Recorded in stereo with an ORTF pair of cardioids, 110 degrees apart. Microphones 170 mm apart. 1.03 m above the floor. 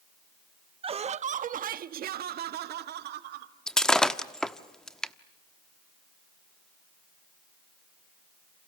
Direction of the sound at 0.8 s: 30° right.